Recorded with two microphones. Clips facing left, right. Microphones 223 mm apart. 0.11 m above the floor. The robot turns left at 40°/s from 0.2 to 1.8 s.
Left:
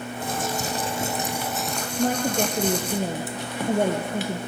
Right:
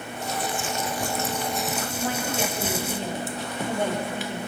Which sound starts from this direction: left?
A woman speaking, at 2.0 s.